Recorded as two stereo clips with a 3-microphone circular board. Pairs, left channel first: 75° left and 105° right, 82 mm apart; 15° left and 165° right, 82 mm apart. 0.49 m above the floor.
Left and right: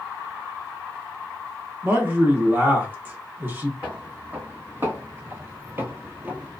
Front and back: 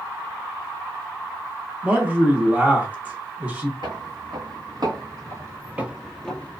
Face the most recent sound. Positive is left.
turn(degrees=-40)